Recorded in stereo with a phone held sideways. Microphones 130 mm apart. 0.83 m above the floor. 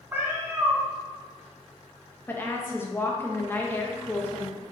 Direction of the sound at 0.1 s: 20° right (ahead or behind).